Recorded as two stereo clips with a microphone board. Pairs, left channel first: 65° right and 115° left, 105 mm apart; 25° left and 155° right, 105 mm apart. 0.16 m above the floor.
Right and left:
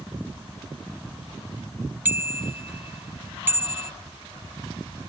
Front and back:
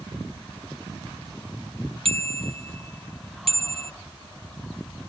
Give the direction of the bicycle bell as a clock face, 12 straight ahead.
6 o'clock.